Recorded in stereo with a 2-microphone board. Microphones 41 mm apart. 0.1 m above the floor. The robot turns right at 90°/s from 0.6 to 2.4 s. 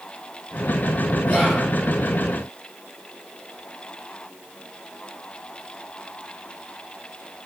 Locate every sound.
1.3 s whispering: centre (ahead or behind), 1.6 m; by 1.7 s 10° left (ahead or behind), 1.6 m